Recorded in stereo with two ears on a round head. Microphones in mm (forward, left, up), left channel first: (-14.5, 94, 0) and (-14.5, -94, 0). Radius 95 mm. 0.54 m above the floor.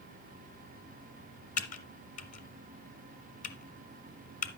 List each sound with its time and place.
1.6 s typing on a keyboard: 40° left (ahead or behind), 1.5 m